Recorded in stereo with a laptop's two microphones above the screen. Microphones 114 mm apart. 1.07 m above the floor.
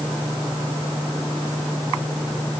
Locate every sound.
Only background noise.